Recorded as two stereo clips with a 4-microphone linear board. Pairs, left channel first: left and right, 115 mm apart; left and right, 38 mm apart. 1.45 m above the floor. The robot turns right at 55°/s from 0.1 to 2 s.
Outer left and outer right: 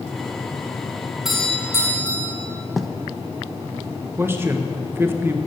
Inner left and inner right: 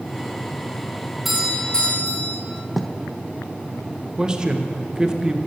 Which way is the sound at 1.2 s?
5° right.